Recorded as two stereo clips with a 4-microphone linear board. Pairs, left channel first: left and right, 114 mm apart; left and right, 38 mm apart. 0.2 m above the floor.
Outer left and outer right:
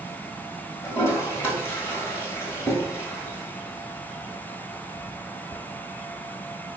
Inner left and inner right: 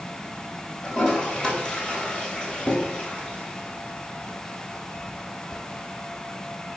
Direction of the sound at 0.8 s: 20° left (ahead or behind).